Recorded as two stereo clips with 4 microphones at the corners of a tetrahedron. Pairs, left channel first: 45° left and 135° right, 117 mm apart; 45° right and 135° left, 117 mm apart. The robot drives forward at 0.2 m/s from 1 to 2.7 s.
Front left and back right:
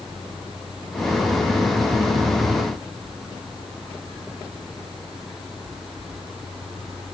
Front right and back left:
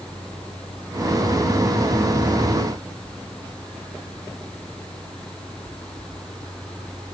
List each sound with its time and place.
Only background noise.